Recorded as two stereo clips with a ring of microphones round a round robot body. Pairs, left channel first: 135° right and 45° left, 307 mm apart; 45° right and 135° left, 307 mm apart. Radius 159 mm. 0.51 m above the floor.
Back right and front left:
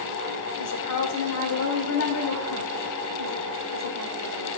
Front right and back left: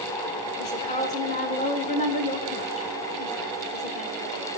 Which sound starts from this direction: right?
A woman speaking, at 0.6 s.